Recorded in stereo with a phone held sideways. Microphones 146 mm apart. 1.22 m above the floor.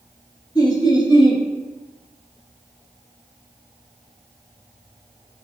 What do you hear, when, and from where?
0.6 s laughter: 25° left (ahead or behind), 0.6 m